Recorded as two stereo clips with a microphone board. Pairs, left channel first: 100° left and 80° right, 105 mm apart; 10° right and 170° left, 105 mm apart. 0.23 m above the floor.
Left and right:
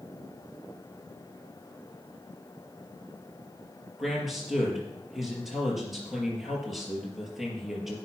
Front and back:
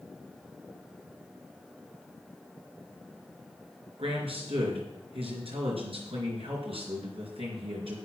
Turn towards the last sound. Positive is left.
turn(degrees=-165)